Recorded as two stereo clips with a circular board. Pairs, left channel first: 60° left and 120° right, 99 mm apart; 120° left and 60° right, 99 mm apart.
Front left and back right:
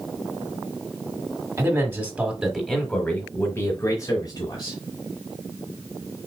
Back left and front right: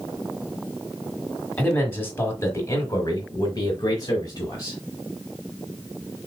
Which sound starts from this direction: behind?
A man speaking, at 1.6 s.